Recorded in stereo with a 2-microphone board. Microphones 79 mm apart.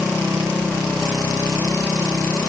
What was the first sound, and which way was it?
Only background noise.